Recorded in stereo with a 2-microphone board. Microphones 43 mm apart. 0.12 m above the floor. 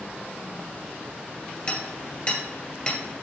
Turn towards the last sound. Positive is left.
turn(degrees=25)  # may be behind; listen again after turning